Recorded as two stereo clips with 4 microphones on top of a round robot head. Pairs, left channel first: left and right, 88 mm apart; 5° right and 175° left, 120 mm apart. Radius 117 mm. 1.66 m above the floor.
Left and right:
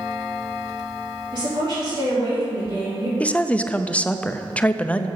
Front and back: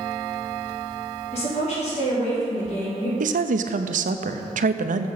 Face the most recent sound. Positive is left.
turn(degrees=165)